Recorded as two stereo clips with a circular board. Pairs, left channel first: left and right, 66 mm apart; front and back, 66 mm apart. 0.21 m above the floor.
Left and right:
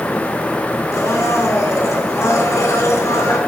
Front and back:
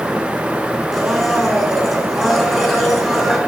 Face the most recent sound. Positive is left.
turn(degrees=95)